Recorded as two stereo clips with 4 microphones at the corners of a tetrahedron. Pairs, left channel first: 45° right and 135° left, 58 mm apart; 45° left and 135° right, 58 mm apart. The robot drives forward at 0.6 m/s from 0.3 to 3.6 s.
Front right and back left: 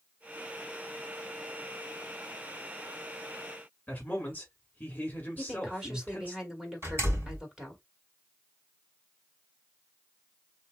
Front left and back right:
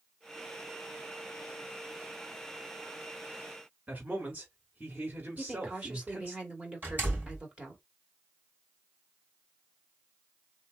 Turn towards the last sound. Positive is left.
turn(degrees=175)